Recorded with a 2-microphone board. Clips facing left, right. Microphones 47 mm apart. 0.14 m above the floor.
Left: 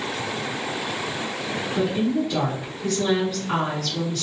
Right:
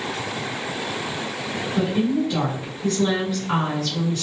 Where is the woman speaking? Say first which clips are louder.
Right 1 dB; 10° right (ahead or behind), 1.7 m.